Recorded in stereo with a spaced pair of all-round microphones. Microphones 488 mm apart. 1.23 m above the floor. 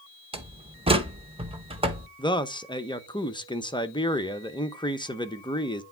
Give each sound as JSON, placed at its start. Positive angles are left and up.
{"t": 0.3, "sound": "a door slam", "side_deg": -10, "distance_m": 0.9}
{"t": 2.2, "sound": "a man speaking", "side_deg": 10, "distance_m": 0.8}